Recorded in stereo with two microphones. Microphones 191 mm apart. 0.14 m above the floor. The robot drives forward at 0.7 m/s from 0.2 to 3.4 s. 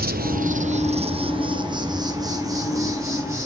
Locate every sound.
0.0 s an insect: 50° right (ahead or behind), 0.9 m; by 3.5 s 15° right (ahead or behind), 3 m